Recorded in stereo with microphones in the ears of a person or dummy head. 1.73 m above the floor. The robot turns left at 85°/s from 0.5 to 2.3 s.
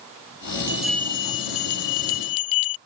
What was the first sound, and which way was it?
A bell, 165° right.